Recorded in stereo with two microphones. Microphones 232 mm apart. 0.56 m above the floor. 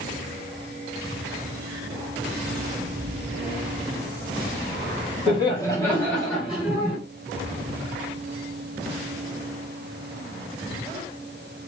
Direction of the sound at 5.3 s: 25° left (ahead or behind).